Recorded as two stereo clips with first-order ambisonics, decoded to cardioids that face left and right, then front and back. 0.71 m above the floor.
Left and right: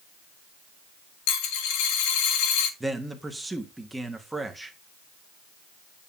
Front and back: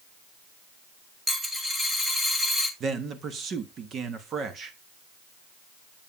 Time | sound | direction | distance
1.3 | a dropped coin | 95° left | 1.5 m
2.8 | a man speaking | 170° right | 1.0 m